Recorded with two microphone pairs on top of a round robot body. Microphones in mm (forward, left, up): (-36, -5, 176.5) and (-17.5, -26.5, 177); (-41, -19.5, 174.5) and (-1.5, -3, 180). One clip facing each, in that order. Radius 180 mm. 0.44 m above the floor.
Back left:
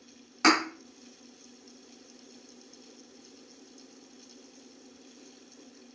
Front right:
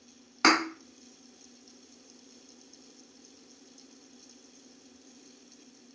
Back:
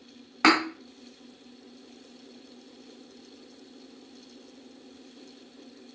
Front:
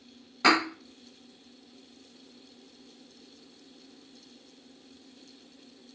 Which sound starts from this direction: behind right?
A thud, at 0.4 s.